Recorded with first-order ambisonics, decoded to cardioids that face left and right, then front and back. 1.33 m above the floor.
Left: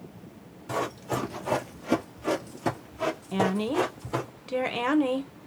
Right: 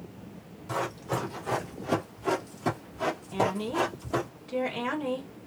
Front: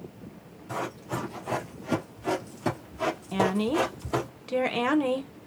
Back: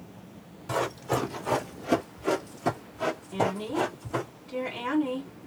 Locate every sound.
0.7 s running footsteps: 160° left, 1.7 m; by 4.3 s 5° left, 1.8 m
3.3 s a woman speaking: 40° left, 1.1 m